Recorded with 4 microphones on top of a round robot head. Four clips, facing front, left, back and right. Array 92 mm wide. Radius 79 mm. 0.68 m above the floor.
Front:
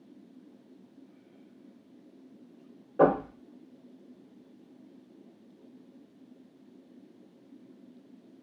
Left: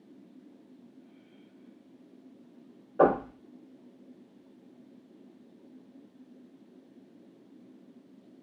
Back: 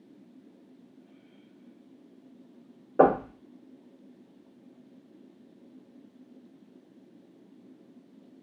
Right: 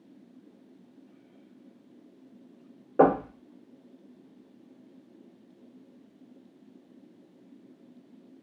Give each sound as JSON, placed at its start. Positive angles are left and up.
{"t": 3.0, "sound": "knocking", "azimuth_deg": -130, "distance_m": 2.5}